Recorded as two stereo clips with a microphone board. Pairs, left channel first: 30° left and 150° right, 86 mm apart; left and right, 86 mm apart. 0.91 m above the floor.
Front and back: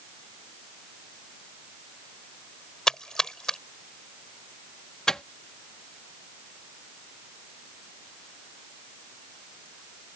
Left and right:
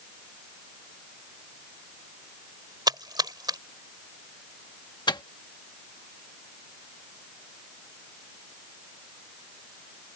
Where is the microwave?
115° left.